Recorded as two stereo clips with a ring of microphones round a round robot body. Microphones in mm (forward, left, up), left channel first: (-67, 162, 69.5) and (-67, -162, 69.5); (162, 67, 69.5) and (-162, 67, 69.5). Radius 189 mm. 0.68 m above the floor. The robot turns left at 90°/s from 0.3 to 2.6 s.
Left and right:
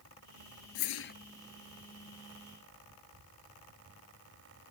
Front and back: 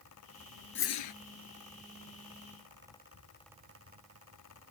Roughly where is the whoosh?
Ahead left.